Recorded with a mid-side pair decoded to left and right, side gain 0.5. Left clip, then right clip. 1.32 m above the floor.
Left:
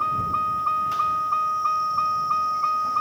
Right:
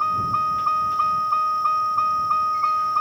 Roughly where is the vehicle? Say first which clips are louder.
Right 2 dB; ahead.